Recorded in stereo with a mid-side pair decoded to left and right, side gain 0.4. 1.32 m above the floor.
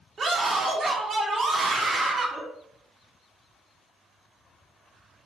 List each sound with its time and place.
0.2 s a scream: 50° right, 1.5 m